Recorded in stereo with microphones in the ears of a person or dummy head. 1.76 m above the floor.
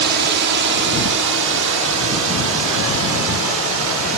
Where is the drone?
60° right (ahead or behind); by 4.2 s 80° right.